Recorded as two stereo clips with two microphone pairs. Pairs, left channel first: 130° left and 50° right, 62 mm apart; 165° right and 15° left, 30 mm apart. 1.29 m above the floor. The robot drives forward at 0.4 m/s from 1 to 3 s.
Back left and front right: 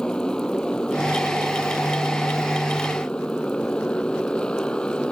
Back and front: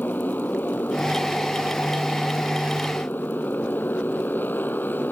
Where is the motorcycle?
150° right; by 5.1 s 155° right.